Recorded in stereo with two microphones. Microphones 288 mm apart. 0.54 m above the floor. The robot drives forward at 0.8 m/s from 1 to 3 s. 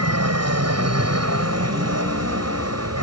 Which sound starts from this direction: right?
An aircraft, at 0.0 s.